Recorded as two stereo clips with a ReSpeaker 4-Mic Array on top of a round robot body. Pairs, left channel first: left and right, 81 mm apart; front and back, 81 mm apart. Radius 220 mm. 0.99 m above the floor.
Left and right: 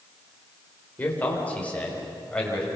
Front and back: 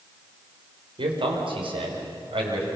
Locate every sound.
1.0 s a man speaking: 160° left, 4 m; by 2.7 s 170° left, 6 m